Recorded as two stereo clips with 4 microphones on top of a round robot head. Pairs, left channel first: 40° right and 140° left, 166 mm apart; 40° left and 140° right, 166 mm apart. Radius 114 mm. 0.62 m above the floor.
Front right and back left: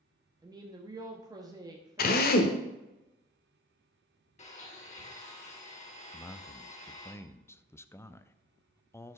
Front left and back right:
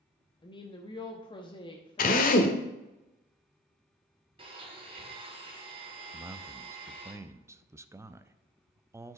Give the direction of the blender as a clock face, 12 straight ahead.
3 o'clock.